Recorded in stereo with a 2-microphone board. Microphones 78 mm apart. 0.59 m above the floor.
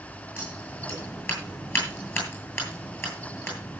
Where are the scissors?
30° left (ahead or behind), 10 m.